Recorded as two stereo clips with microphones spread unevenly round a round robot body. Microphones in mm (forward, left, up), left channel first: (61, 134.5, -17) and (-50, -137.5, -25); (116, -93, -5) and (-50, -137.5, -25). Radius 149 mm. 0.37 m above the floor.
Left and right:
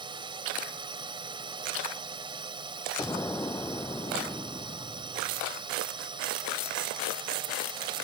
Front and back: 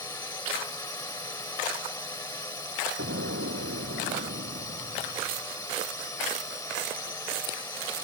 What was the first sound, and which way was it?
A drone, 45° right.